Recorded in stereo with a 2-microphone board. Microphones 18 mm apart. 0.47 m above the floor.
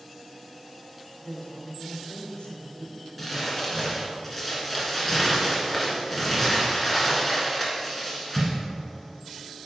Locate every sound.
1.2 s a woman speaking: 65° left (ahead or behind), 2.0 m
3.2 s crumpling: 5° left (ahead or behind), 2.5 m